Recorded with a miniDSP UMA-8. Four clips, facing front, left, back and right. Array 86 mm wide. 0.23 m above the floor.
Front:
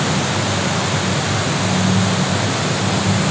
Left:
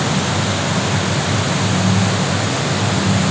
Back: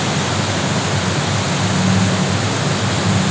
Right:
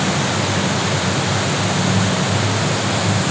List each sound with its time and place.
Only background noise.